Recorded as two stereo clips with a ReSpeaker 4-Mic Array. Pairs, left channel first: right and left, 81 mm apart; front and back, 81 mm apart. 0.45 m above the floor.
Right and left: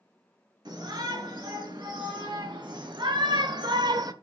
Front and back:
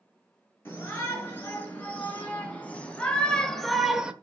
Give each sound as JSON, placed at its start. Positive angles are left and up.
{"t": 0.7, "sound": "a shout", "azimuth_deg": 65, "distance_m": 6.0}